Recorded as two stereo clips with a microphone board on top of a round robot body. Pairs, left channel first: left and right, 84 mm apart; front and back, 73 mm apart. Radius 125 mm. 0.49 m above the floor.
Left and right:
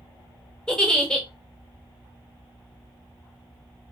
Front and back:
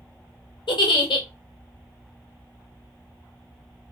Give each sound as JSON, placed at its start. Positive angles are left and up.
{"t": 0.7, "sound": "a giggle", "azimuth_deg": 10, "distance_m": 0.7}